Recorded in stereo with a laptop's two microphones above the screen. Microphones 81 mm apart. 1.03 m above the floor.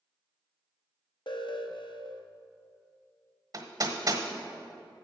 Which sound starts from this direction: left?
An alarm, at 1.3 s.